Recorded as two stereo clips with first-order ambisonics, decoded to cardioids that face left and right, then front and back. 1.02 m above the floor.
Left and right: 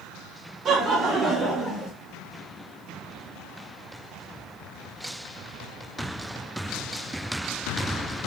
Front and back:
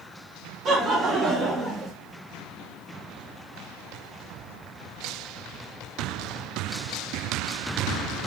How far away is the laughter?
About 0.9 m.